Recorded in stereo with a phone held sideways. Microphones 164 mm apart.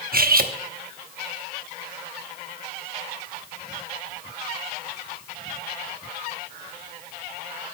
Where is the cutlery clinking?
60° right (ahead or behind), 0.8 m.